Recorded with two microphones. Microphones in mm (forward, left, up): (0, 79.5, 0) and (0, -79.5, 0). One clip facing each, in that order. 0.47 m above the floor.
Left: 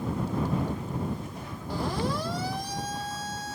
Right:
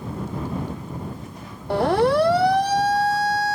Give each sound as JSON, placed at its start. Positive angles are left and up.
{"t": 1.7, "sound": "a siren", "side_deg": -60}